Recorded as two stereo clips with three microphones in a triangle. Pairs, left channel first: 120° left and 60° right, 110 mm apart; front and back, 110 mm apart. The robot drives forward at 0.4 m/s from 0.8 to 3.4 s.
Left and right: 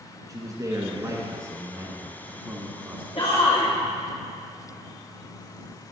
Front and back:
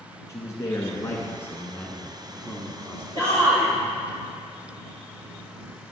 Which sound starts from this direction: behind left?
A shout, at 3.1 s.